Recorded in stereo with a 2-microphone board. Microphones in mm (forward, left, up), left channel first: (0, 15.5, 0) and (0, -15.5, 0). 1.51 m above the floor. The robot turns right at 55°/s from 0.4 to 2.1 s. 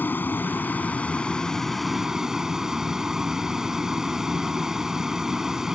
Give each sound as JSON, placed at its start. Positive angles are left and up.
{"t": 0.0, "sound": "a vehicle", "azimuth_deg": 100}